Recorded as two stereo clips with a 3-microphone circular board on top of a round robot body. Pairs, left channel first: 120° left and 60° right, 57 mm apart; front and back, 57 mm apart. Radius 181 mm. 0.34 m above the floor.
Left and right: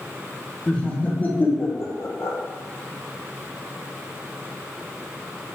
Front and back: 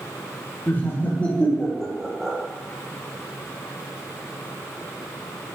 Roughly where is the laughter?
Ahead left.